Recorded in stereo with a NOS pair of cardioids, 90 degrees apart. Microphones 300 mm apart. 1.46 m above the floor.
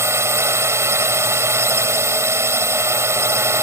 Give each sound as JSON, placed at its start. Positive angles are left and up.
{"t": 0.0, "sound": "a drone", "azimuth_deg": -10}